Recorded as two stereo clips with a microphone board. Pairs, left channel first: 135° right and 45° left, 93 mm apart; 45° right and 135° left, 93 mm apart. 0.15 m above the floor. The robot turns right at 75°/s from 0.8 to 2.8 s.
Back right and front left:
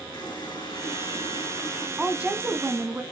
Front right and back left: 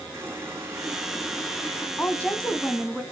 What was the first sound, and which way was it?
A running tap, 165° right.